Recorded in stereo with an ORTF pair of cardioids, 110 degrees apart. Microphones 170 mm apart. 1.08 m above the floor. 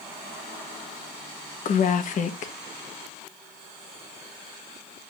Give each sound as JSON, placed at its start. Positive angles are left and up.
{"t": 1.6, "sound": "a woman speaking", "azimuth_deg": 50, "distance_m": 1.4}